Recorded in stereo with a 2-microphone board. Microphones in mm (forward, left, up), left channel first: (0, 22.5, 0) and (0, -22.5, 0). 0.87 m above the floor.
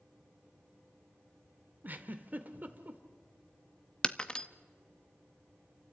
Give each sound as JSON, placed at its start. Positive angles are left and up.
{"t": 1.8, "sound": "a giggle", "side_deg": -40, "distance_m": 1.2}
{"t": 4.0, "sound": "breaking glass", "side_deg": 20, "distance_m": 0.6}